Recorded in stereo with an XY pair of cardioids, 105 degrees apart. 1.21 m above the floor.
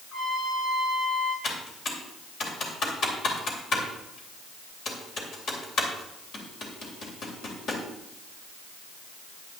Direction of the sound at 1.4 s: 60° left.